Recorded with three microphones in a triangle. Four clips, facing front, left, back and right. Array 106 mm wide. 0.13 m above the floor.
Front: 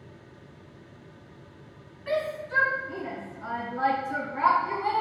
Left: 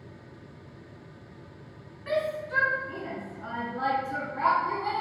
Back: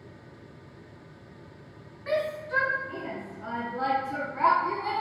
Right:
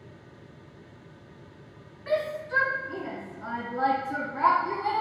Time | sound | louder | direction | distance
2.1 | a shout | right 1 dB, even | 165° right | 1.5 m